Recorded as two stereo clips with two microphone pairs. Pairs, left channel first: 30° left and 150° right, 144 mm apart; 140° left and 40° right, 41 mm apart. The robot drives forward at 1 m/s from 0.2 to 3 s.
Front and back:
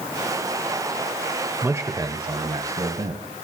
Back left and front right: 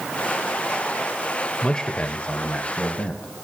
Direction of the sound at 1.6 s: 155° left.